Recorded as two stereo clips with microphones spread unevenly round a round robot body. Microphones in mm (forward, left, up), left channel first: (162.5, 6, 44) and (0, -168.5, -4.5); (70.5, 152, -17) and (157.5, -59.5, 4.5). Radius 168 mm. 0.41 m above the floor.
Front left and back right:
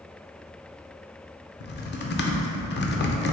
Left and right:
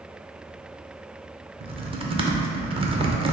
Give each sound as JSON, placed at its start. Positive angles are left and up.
{"t": 1.6, "sound": "typing on a keyboard", "azimuth_deg": 0, "distance_m": 0.6}